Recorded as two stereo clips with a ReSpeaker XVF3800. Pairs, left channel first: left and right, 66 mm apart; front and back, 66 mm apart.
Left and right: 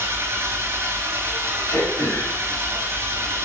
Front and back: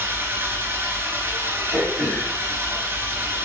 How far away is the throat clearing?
About 2.5 m.